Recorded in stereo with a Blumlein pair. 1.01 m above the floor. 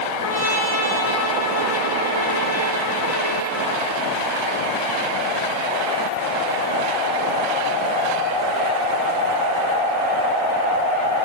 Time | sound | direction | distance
0.2 | a trumpet | 60° left | 5.5 m